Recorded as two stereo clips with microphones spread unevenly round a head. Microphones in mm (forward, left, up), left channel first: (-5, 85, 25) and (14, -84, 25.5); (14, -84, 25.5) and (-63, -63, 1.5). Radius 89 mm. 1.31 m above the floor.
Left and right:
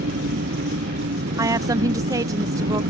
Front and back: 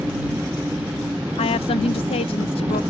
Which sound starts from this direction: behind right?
An engine running, at 0.0 s.